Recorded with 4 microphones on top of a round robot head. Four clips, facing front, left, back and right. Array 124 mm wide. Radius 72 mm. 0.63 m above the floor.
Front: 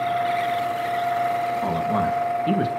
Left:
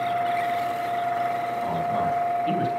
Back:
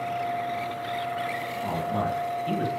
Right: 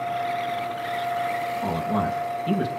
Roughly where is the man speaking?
Ahead.